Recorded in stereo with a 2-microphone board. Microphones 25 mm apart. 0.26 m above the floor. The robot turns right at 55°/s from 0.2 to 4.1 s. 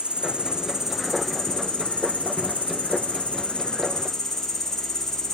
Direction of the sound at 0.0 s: 50° right.